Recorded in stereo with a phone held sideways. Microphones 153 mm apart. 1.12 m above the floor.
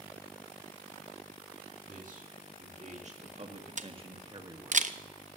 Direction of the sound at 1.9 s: 60° right (ahead or behind).